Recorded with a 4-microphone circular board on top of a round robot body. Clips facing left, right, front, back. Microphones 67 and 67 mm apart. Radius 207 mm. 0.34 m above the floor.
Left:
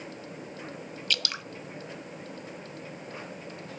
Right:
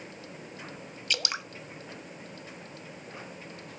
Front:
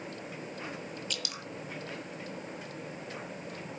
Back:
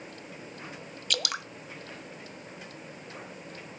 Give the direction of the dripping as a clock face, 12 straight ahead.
5 o'clock.